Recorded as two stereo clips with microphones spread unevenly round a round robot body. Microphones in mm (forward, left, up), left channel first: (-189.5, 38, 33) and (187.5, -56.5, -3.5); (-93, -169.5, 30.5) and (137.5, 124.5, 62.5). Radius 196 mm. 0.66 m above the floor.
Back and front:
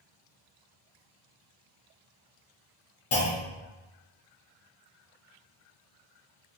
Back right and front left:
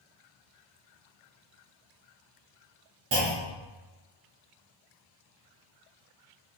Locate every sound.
3.1 s a clunk: 110° left, 0.9 m